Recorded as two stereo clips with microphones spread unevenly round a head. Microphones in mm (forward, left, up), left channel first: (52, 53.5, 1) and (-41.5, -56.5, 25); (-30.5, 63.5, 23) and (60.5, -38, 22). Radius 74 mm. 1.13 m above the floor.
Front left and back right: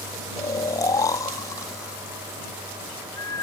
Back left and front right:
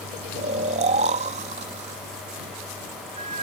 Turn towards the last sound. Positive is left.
turn(degrees=-15)